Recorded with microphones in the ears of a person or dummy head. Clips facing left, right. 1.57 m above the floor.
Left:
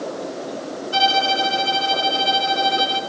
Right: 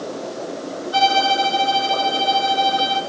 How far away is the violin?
About 2.5 m.